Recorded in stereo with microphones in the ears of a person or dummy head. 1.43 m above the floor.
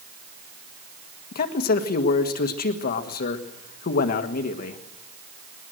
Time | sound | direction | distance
1.3 | a man speaking | 55° left (ahead or behind) | 1.6 m